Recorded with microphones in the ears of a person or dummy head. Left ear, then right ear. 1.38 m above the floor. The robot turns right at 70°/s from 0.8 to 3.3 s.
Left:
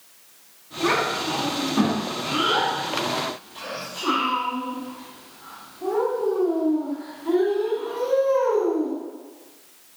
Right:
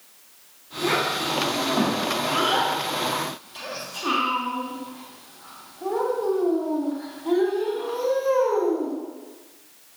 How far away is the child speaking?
About 1.8 m.